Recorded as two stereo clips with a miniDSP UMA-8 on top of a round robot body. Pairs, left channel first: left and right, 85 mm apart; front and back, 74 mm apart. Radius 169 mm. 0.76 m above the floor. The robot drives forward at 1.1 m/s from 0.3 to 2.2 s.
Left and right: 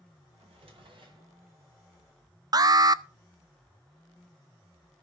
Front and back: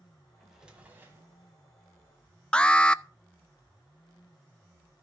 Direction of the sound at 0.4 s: 90° right.